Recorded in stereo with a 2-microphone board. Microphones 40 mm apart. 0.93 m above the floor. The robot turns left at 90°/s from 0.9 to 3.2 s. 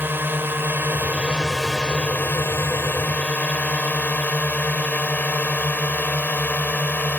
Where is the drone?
55° right (ahead or behind); by 7.2 s 45° left (ahead or behind).